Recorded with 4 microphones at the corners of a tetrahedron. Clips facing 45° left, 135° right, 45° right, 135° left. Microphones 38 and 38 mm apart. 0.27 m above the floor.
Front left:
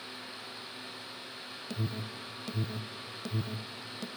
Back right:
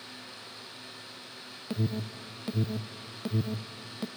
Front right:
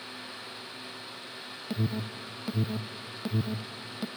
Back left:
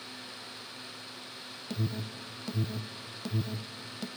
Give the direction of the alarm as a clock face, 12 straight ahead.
3 o'clock.